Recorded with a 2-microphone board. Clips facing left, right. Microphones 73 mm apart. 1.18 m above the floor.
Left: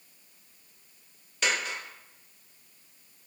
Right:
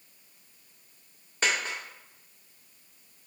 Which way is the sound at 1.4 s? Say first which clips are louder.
Right 1 dB; 35° right (ahead or behind).